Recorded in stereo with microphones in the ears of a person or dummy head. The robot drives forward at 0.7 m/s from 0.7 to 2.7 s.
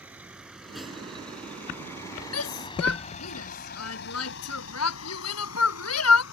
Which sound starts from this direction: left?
A shout, at 2.3 s.